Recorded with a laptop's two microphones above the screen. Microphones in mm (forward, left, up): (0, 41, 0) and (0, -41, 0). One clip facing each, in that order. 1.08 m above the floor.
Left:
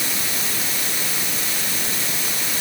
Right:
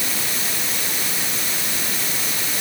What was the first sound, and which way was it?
Only background noise.